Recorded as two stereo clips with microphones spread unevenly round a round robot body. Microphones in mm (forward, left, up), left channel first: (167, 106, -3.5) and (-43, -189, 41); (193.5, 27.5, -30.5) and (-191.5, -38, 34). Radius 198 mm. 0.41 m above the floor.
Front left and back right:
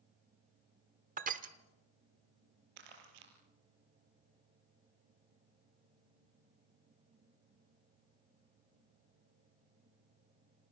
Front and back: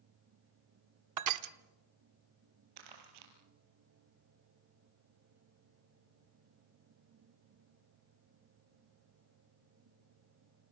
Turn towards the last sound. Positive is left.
turn(degrees=-140)